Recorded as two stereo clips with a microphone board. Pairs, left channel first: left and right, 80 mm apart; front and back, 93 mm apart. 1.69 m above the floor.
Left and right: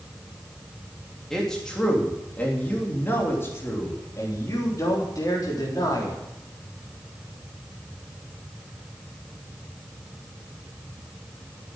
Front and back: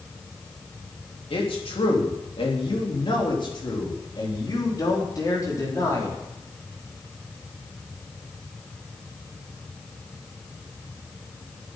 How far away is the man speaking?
About 3.5 m.